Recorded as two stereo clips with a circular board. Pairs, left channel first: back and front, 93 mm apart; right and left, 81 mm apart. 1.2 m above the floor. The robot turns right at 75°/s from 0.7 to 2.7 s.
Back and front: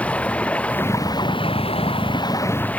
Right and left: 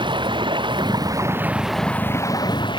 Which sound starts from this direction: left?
Running water, at 0.0 s.